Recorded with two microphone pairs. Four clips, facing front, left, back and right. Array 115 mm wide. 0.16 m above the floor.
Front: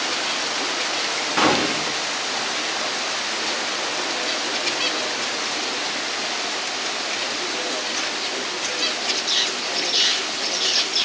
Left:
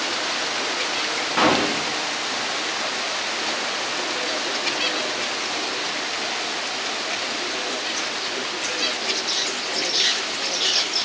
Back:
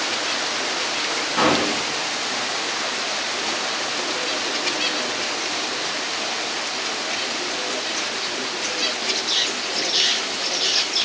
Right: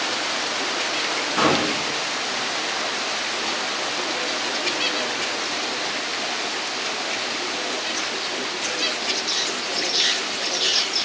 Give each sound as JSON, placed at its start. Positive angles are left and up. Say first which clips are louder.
{"t": 1.4, "sound": "a gunshot", "louder": "left 1 dB, even", "azimuth_deg": 50, "distance_m": 1.3}